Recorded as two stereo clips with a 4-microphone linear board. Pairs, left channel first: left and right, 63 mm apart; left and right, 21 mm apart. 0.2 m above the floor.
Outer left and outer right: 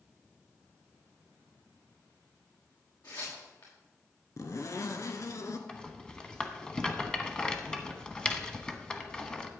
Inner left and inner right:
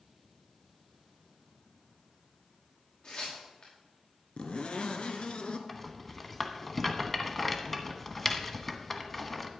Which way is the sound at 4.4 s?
55° left (ahead or behind).